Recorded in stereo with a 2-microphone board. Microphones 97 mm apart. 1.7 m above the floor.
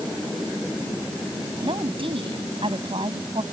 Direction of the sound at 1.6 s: 70° right (ahead or behind).